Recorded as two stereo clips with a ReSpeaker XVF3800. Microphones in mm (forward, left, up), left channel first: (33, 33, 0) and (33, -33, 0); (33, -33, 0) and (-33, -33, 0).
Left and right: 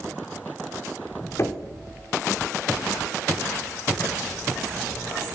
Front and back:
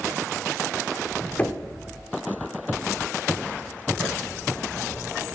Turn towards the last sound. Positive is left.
turn(degrees=65)